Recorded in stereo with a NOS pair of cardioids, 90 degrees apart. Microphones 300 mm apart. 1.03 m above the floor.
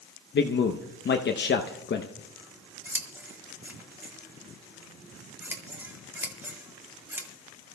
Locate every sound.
0.3 s a man speaking: 40° left, 0.8 m
2.2 s scissors: 5° right, 1.7 m